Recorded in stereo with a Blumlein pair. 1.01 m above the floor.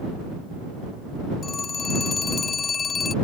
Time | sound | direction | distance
1.4 | a phone ringing | 20° left | ?